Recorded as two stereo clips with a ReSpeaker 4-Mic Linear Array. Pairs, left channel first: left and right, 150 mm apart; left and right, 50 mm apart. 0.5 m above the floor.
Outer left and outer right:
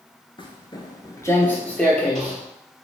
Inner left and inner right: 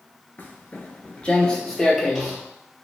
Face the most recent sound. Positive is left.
turn(degrees=0)  # may be behind; listen again after turning